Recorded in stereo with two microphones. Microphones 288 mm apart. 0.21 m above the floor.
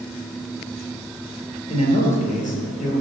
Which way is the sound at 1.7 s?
20° left (ahead or behind).